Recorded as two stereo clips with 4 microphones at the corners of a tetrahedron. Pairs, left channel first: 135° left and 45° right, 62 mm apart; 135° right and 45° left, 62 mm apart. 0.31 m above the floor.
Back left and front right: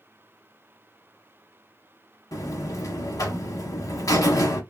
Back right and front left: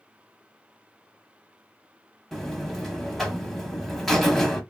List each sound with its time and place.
2.3 s a buzzer: 140° left, 0.8 m